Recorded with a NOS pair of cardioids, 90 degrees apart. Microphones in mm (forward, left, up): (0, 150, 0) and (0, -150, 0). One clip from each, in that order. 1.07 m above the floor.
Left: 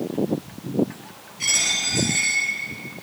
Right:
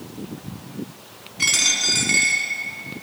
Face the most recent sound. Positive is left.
turn(degrees=-60)